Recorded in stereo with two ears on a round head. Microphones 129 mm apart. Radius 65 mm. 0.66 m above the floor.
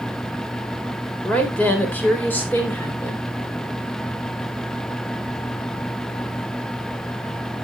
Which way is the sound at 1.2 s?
10° left (ahead or behind).